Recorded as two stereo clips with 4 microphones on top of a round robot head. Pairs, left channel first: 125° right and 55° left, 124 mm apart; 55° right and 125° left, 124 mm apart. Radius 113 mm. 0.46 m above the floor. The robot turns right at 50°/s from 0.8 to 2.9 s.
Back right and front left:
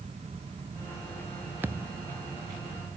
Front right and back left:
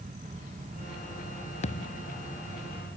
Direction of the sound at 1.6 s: 20° right.